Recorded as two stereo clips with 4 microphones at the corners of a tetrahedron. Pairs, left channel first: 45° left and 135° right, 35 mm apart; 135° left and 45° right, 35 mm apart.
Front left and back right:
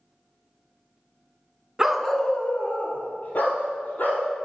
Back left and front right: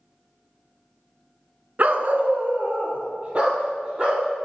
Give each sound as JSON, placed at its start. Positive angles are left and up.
{"t": 1.8, "sound": "a dog barking", "azimuth_deg": -60, "distance_m": 0.6}